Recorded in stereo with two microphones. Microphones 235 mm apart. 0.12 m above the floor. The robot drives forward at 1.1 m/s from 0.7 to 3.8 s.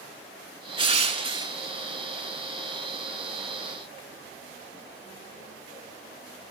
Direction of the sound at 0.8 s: 25° right (ahead or behind).